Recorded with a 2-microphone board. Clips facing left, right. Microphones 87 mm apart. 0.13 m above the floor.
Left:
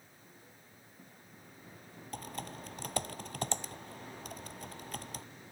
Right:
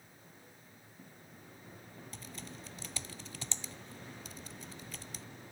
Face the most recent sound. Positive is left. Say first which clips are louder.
# left 9 dB
turn(degrees=55)  # may be behind; listen again after turning